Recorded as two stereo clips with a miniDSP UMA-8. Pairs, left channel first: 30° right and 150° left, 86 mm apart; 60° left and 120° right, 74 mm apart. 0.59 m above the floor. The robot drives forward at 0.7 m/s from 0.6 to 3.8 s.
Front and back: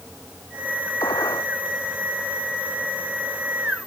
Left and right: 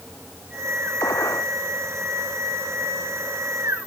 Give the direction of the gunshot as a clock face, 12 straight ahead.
12 o'clock.